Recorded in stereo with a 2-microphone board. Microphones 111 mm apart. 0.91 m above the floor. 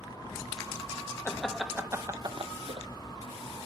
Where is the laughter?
15° left (ahead or behind), 0.6 m; by 2.9 s 55° right (ahead or behind), 1.0 m.